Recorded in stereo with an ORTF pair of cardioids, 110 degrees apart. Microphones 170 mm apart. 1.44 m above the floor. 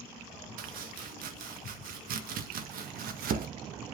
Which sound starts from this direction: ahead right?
Chopping, at 0.6 s.